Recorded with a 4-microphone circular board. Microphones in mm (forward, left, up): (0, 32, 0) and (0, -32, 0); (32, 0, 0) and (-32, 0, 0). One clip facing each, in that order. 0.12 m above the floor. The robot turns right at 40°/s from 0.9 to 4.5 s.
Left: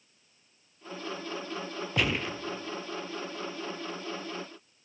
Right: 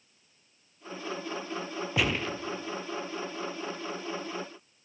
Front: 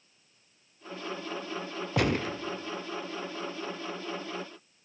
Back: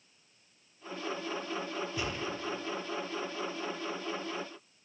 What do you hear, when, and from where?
2.0 s a gunshot: straight ahead, 0.9 m; by 2.4 s 15° left, 0.9 m